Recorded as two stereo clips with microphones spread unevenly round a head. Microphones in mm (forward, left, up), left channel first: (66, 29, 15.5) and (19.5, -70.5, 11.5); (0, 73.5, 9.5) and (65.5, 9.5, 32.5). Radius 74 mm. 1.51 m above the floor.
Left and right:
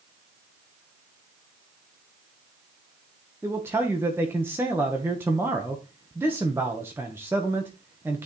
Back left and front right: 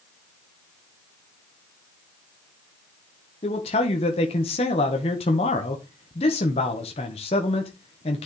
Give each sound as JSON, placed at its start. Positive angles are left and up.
{"t": 3.4, "sound": "a man speaking", "azimuth_deg": 170, "distance_m": 1.4}